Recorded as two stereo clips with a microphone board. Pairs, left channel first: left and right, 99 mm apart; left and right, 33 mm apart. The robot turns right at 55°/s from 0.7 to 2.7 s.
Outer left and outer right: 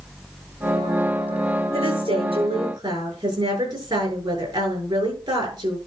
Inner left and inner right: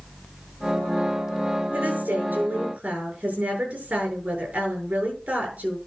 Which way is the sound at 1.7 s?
100° right.